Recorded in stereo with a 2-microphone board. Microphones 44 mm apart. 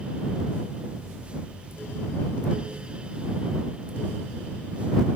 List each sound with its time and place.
Only background noise.